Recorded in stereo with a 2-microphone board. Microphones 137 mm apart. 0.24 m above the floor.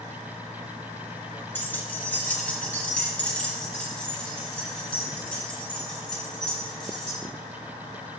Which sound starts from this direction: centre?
Keys jangling, at 1.6 s.